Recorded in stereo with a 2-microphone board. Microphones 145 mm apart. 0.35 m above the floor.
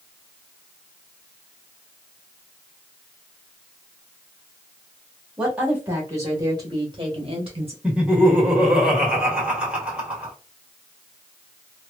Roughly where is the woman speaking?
Centre.